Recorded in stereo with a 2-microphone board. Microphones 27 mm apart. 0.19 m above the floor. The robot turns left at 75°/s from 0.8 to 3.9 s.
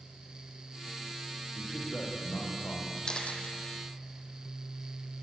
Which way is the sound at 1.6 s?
165° left.